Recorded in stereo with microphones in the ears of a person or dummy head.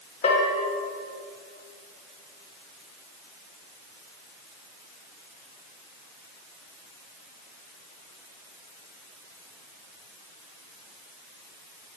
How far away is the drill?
No drill in this recording.